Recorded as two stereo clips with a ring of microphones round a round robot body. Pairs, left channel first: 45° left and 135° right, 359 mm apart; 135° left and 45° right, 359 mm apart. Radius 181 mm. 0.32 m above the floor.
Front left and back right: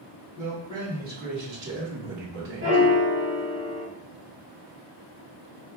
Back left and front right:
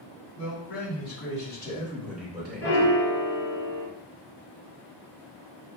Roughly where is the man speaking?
Behind left.